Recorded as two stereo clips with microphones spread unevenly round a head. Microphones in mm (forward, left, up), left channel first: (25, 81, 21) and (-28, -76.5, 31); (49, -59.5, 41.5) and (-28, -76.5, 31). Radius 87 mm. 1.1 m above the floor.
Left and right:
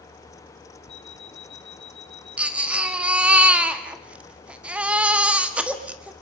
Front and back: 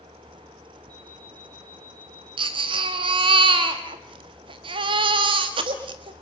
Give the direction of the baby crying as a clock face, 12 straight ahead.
6 o'clock.